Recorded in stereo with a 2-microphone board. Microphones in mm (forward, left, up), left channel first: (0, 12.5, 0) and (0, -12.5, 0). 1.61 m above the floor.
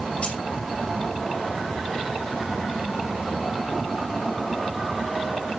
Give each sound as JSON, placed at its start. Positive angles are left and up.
{"t": 0.2, "sound": "keys jangling", "side_deg": 50, "distance_m": 5.5}